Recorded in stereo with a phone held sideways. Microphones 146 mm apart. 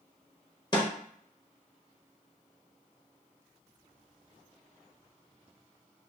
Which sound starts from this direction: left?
A snare drum, at 0.7 s.